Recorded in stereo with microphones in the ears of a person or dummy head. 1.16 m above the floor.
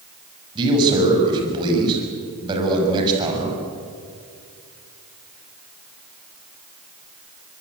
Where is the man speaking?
25° right (ahead or behind), 7 m.